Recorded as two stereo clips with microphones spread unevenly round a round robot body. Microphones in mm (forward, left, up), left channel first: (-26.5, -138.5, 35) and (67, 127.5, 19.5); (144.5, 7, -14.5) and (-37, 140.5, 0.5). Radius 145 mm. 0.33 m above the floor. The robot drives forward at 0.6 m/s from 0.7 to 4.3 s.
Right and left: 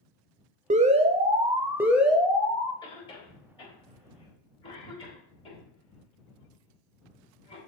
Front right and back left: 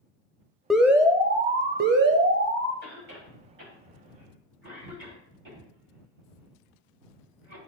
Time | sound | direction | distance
0.7 | an alarm | 45° left | 0.8 m
2.8 | a cough | straight behind | 1.9 m